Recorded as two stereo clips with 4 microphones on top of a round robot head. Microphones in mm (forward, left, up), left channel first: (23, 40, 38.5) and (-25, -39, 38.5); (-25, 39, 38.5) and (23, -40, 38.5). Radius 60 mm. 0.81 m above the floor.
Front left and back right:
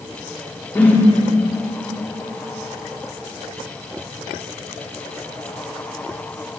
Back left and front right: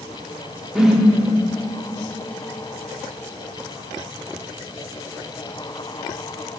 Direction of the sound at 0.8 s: 20° left.